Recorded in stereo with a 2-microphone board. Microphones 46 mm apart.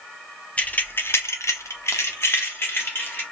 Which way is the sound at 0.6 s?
25° left (ahead or behind).